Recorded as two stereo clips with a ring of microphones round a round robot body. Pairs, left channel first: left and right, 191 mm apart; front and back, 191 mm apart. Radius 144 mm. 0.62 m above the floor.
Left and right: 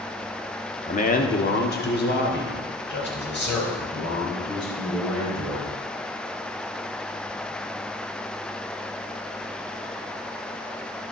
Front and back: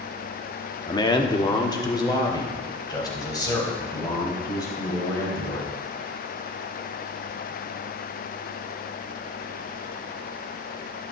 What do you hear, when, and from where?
0.9 s a man speaking: 60° left, 1.4 m; by 5.7 s 70° left, 8 m